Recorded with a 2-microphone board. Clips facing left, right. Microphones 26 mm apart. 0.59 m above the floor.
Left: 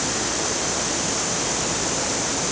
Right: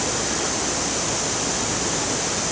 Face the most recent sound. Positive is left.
No sound to turn to.